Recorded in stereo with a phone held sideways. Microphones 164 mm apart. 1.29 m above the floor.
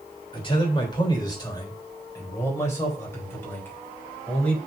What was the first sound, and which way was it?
A man speaking, 30° left (ahead or behind).